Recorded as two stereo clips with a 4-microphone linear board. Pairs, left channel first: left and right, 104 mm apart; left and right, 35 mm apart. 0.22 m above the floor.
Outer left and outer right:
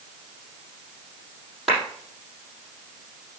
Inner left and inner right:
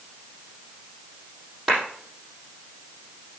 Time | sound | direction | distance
1.7 | a clap | centre (ahead or behind) | 6 m